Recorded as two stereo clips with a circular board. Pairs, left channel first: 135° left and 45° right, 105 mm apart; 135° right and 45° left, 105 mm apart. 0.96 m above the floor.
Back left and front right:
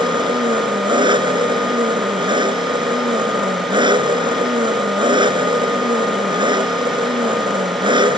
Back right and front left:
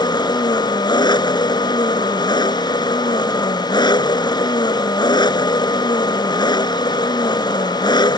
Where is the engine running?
90° right.